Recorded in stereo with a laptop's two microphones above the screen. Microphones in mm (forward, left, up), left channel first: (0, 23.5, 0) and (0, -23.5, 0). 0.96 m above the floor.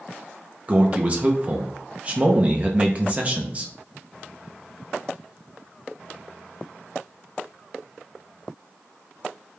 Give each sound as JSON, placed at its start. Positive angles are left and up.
{"t": 0.7, "sound": "a man speaking", "side_deg": -30, "distance_m": 0.5}